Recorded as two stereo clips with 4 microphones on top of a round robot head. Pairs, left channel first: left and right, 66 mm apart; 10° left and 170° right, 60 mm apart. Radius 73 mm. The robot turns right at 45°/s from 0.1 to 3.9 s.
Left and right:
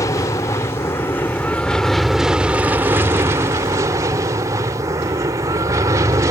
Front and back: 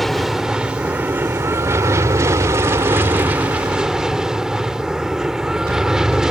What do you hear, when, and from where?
0.0 s an aircraft: 95° left; by 6.3 s 95° right